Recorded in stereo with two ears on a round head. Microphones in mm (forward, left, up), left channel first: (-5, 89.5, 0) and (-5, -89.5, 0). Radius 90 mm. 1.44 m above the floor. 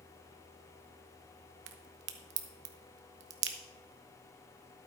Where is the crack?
65° right (ahead or behind), 1.0 m.